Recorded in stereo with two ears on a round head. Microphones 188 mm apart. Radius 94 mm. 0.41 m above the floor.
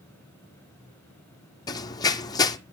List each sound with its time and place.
1.7 s running footsteps: 20° left (ahead or behind), 1.0 m